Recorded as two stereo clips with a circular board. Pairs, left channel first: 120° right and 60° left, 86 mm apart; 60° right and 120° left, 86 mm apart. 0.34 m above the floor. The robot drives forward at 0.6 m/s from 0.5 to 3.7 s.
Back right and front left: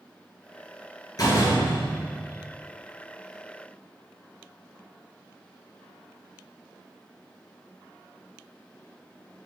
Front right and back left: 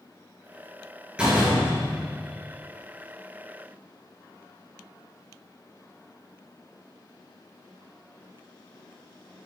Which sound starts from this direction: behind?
A door slam, at 1.2 s.